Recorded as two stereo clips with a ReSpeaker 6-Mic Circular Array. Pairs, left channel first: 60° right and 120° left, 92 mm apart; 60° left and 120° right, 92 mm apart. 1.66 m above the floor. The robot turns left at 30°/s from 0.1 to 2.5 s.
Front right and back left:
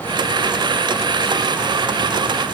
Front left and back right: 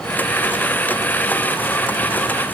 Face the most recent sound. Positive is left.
No sound to turn to.